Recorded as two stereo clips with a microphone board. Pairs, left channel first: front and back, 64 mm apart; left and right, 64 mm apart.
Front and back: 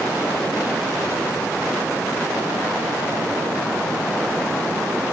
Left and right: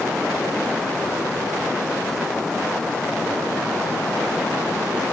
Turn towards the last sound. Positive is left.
No sound to turn to.